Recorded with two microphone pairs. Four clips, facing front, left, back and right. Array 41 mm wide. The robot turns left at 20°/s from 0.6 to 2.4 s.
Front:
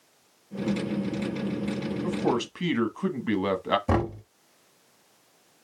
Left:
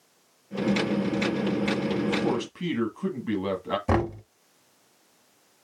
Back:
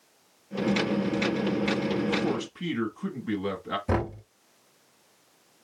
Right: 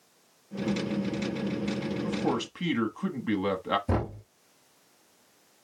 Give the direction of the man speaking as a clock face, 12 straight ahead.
12 o'clock.